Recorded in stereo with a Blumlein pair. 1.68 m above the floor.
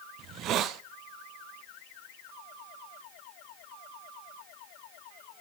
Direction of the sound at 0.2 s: 35° right.